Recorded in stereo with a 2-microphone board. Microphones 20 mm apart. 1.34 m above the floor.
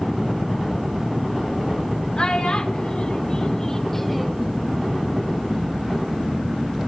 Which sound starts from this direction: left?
A child speaking, at 2.2 s.